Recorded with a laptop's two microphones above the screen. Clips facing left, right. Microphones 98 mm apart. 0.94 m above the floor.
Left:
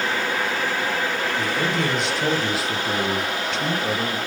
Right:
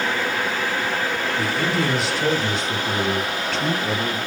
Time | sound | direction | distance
1.4 | a man speaking | 5° right (ahead or behind) | 1.4 m